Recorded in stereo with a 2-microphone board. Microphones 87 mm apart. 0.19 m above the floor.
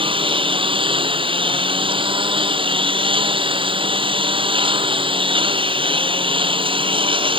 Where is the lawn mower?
80° right.